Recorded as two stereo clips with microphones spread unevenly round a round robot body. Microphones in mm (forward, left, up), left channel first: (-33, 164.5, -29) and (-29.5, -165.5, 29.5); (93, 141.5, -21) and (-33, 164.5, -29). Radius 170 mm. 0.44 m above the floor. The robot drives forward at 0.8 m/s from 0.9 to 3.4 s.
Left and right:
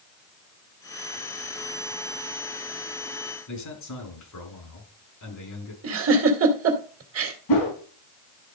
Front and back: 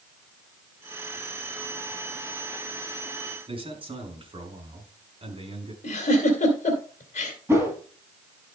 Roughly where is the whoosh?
Left.